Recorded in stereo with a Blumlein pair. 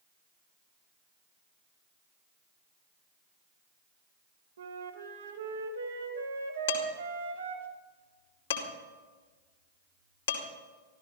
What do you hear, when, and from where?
4.6 s a flute: 65° right, 1.7 m
6.7 s dishes clattering: 60° left, 2.5 m